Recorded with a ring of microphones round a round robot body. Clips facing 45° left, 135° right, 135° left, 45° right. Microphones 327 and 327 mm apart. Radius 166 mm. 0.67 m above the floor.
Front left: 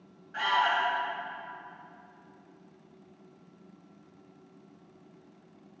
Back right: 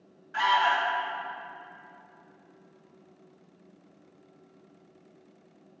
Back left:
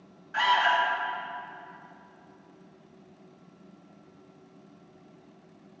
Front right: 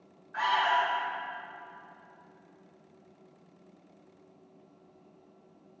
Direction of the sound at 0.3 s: 160° left.